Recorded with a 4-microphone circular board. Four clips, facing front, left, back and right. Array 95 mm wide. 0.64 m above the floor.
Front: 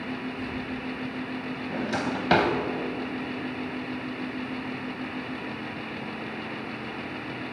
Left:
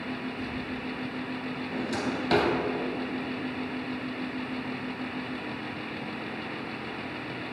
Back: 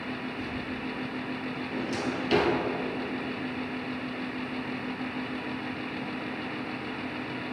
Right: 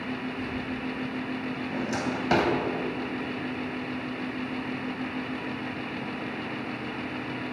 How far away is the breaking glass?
No breaking glass in this recording.